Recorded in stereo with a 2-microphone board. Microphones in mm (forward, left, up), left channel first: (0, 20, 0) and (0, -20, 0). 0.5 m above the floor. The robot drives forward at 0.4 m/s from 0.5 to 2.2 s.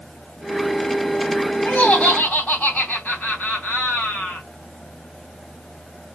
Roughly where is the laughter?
Left.